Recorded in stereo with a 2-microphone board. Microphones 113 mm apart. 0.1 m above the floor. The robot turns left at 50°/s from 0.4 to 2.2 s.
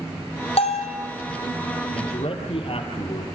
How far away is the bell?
About 3.5 m.